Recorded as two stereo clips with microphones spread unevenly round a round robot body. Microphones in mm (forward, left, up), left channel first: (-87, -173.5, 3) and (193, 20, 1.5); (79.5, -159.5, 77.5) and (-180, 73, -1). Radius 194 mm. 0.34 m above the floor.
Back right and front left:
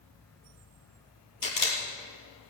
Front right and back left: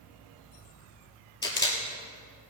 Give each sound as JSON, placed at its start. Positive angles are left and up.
{"t": 1.4, "sound": "a camera shutter", "azimuth_deg": -120, "distance_m": 3.0}